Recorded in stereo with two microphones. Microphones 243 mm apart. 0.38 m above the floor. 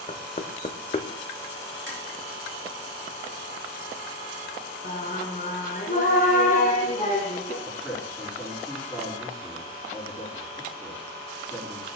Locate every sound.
0.1 s knocking: 30° left (ahead or behind), 0.6 m
1.9 s tapping: 50° right (ahead or behind), 3.5 m
4.8 s singing: 35° left (ahead or behind), 2.5 m
7.6 s a man speaking: 5° right (ahead or behind), 5.5 m